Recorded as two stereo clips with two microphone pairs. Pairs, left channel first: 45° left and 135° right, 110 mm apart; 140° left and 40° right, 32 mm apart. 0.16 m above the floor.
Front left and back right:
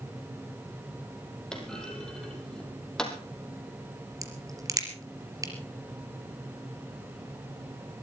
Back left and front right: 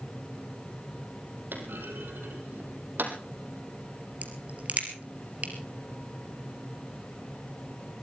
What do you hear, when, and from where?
1.5 s a clunk: 40° right, 3.5 m
4.2 s a crack: 75° right, 3.5 m